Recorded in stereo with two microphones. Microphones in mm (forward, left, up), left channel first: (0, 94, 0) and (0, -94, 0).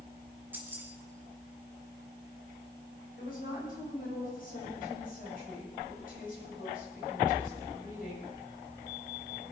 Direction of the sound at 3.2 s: 50° left (ahead or behind).